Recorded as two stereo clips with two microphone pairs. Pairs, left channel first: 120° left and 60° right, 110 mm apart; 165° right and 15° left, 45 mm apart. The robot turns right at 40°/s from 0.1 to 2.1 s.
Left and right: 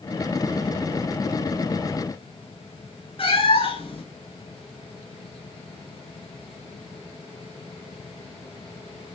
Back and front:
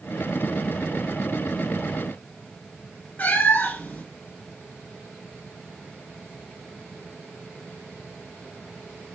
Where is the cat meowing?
145° left, 1.3 m.